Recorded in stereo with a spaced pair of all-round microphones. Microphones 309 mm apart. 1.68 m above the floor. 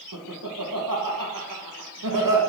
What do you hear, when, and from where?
0.1 s laughter: 85° right, 2 m